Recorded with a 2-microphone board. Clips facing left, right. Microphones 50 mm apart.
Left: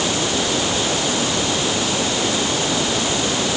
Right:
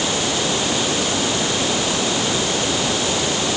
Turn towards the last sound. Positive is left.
No sound to turn to.